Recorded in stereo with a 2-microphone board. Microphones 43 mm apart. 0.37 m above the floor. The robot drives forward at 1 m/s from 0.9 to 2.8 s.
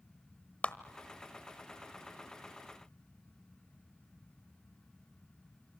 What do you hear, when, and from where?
0.6 s a clap: 30° left (ahead or behind), 1.0 m